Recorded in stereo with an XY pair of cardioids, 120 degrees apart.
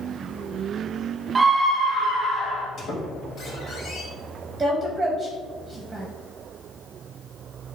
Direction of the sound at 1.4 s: 25° right.